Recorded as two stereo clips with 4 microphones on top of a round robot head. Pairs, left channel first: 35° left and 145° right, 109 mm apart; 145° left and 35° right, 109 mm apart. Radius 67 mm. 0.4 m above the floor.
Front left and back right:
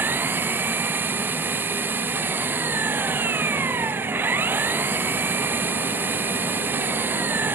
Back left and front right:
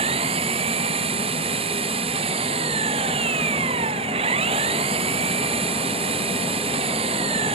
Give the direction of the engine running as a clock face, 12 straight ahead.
2 o'clock.